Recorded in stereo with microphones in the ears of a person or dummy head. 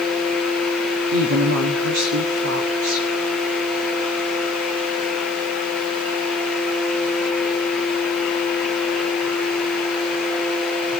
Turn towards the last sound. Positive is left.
turn(degrees=-85)